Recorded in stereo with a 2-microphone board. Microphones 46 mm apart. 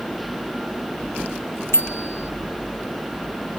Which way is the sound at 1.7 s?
65° left (ahead or behind).